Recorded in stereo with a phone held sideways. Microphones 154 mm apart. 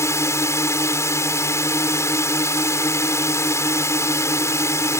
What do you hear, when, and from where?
0.0 s a drone: 20° left (ahead or behind)